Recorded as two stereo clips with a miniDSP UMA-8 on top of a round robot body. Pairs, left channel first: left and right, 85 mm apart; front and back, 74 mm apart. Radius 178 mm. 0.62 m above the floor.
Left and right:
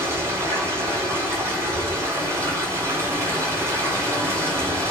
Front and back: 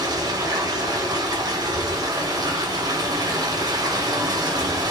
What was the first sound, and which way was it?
Running water, 150° right.